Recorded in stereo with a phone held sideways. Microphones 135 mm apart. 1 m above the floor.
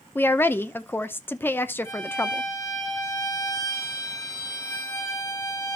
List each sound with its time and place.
0.1 s a woman speaking: 15° left (ahead or behind), 0.7 m
1.9 s a violin: 20° left (ahead or behind), 4 m